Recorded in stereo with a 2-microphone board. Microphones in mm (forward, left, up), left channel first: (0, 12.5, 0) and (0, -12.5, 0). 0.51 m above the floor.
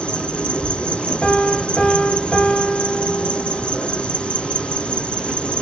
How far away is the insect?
About 3 m.